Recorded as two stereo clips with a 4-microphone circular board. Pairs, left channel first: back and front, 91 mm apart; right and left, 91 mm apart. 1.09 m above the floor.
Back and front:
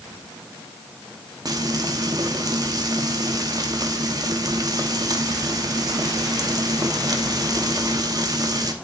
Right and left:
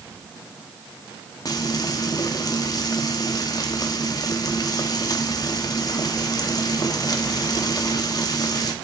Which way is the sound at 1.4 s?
45° right.